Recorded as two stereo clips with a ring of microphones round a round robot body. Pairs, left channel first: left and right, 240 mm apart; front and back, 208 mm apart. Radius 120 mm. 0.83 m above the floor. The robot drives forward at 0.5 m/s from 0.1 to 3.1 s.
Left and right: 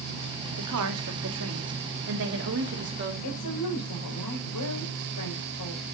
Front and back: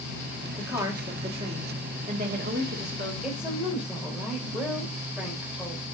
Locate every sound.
0.6 s a woman speaking: 100° right, 1.8 m; by 3.1 s 135° right, 2.5 m
3.2 s a woman speaking: 95° left, 3.5 m